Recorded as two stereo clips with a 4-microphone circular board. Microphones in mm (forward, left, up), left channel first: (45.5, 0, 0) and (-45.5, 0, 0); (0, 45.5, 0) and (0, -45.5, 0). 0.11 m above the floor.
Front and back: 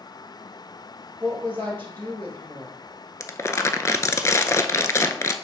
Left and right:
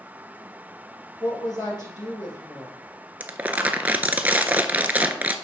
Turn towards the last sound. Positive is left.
turn(degrees=-30)